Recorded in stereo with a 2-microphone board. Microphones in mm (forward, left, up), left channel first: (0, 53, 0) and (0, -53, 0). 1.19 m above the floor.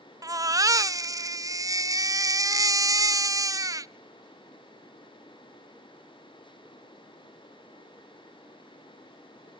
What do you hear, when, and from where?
0.2 s a baby crying: 30° right (ahead or behind), 0.6 m